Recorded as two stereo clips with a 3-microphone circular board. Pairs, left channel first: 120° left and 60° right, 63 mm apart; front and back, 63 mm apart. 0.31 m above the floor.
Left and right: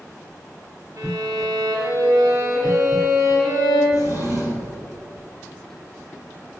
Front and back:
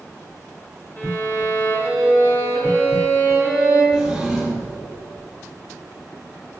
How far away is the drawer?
About 4.5 m.